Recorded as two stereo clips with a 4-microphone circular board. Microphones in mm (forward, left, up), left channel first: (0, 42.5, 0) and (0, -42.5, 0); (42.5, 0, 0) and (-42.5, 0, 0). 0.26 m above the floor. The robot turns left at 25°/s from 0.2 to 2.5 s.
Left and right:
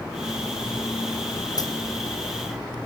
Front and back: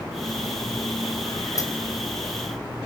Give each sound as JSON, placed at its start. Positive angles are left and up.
{"t": 1.6, "sound": "a dropped coin", "azimuth_deg": 50, "distance_m": 2.5}